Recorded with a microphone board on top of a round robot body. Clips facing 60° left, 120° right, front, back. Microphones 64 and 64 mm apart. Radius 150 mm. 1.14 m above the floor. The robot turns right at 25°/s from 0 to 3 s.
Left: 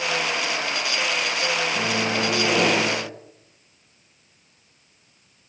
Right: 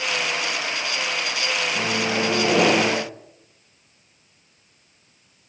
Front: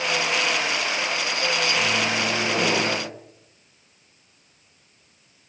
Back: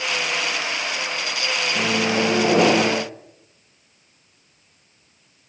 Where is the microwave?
145° left, 0.9 m; by 3.0 s straight behind, 0.9 m.